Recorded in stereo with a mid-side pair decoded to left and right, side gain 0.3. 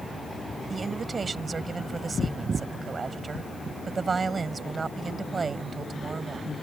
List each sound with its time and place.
0.7 s a woman speaking: 50° right